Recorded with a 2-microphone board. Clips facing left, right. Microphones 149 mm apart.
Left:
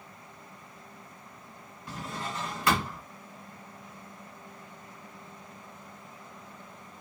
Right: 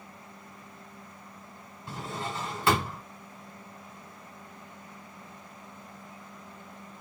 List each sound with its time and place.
1.9 s a drawer: 25° right (ahead or behind), 1.2 m